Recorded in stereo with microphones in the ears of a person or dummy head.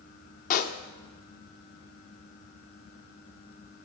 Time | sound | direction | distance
0.5 | a pop | 45° left (ahead or behind) | 0.6 m